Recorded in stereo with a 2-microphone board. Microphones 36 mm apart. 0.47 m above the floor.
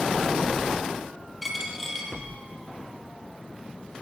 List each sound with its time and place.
1.4 s a dropped coin: centre (ahead or behind), 2.5 m